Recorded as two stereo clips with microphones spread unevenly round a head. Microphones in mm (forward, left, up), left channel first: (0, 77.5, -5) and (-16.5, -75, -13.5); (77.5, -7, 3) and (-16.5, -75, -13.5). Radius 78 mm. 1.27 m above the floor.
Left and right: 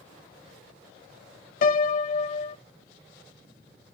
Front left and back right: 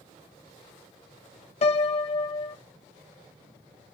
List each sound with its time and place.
1.6 s a piano: 55° left, 0.6 m